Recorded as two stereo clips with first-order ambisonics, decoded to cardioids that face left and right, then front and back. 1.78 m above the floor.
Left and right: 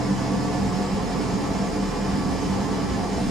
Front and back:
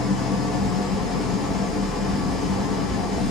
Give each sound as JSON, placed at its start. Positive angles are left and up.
{"t": 0.0, "sound": "an engine running", "azimuth_deg": -25, "distance_m": 0.7}